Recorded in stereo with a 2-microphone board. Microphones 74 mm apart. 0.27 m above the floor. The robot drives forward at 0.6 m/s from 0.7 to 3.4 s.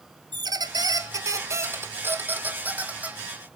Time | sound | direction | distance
0.3 | a squeak | 70° right (ahead or behind) | 0.6 m